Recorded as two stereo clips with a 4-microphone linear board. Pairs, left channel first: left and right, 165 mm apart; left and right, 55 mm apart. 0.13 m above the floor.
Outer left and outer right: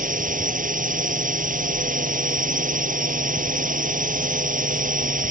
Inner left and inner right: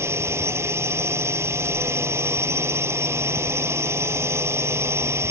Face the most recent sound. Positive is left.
turn(degrees=-55)  # may be behind; listen again after turning